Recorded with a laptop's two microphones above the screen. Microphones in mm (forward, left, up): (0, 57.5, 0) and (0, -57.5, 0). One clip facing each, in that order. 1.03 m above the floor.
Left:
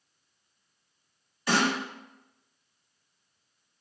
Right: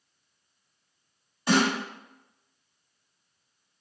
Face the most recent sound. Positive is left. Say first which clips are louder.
# right 3 dB
turn(degrees=-25)  # may be behind; listen again after turning